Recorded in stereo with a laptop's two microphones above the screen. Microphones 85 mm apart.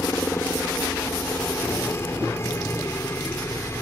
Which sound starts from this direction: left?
A helicopter, at 0.0 s.